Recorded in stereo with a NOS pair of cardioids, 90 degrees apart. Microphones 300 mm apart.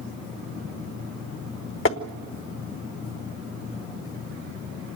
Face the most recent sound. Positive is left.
turn(degrees=45)